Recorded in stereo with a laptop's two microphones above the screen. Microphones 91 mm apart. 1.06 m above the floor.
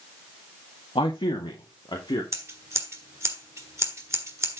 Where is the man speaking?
75° left (ahead or behind), 1.6 m; by 2.2 s 55° left (ahead or behind), 2.5 m.